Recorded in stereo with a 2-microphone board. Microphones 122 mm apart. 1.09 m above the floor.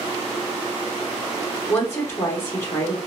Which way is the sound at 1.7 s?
20° left (ahead or behind).